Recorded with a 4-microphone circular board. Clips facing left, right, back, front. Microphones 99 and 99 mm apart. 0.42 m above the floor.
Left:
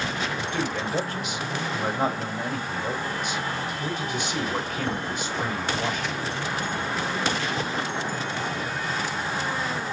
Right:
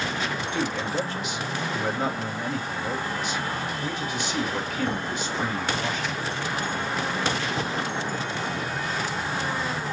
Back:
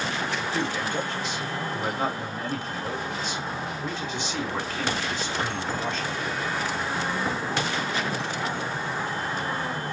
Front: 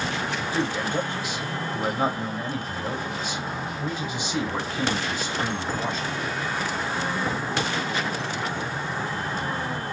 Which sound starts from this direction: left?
A man speaking, at 0.4 s.